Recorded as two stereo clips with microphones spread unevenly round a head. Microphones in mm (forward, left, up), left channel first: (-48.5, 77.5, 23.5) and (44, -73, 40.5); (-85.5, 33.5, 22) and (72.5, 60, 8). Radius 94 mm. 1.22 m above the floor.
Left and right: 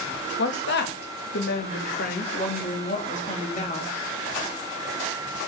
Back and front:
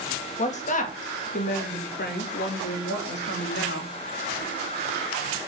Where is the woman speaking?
145° left, 2 m; by 3.9 s 175° left, 3.5 m.